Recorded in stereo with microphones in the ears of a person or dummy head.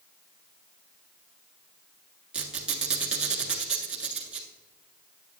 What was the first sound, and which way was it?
A squeak, 5° right (ahead or behind).